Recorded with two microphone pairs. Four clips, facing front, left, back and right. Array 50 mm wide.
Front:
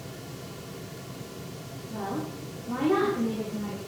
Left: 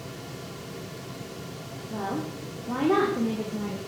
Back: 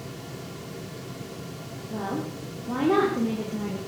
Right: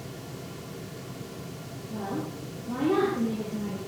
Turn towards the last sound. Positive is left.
turn(degrees=125)